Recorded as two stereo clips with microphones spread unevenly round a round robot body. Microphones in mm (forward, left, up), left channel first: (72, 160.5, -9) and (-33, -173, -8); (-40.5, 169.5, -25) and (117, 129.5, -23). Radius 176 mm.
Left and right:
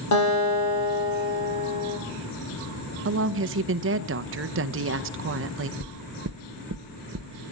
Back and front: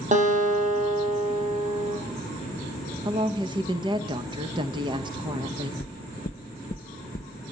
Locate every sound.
0.1 s a guitar: 30° left, 6 m
3.0 s a woman speaking: 70° right, 0.6 m
5.8 s knocking: 160° right, 0.9 m